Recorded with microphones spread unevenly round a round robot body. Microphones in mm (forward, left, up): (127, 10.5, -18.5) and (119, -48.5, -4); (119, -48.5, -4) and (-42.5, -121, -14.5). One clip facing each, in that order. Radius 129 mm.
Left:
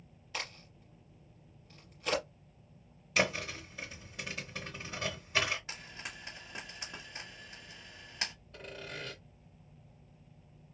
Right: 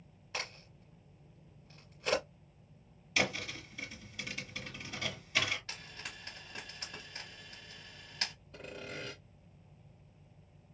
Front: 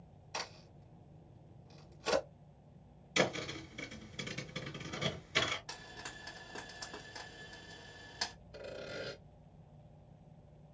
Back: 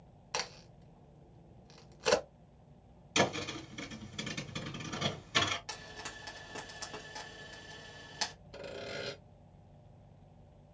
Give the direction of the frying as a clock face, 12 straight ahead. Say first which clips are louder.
Left 2 dB, back 3 dB; 7 o'clock.